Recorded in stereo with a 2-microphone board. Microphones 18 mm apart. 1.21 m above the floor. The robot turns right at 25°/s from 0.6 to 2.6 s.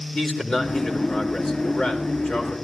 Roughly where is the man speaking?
Ahead left.